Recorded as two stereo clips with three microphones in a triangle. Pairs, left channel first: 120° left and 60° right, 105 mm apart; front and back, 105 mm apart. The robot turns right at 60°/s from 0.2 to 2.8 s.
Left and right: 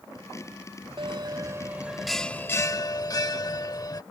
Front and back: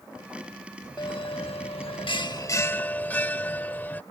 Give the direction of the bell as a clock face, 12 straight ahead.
1 o'clock.